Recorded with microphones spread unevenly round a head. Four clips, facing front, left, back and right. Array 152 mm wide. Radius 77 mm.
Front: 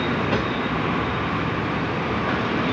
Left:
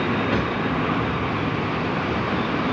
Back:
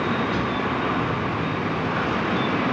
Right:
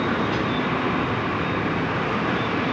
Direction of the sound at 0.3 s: 40° left.